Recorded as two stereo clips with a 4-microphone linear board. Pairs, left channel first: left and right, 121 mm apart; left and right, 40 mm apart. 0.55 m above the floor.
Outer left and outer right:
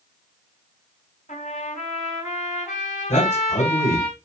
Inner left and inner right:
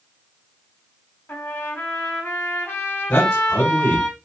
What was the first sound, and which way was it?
A trumpet, 75° left (ahead or behind).